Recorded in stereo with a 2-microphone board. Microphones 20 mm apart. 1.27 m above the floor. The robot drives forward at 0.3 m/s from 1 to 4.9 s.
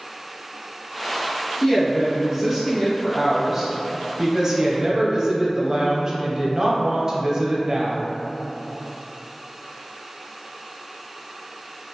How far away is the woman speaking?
About 1.3 m.